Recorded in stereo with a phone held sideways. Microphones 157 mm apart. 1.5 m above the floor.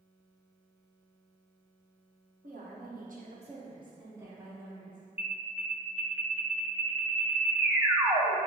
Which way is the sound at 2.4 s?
60° right (ahead or behind).